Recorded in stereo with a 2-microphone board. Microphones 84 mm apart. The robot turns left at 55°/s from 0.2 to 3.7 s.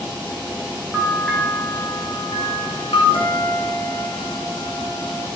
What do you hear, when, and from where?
0.9 s a bell: 15° right (ahead or behind), 6 m; by 3.0 s 80° left, 6 m
3.1 s a guitar: 85° left, 6.5 m; by 5.3 s 55° left, 6.5 m